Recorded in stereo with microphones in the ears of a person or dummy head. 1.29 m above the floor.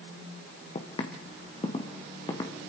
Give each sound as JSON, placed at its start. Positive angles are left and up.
{"t": 0.8, "sound": "footsteps", "side_deg": 35, "distance_m": 3.0}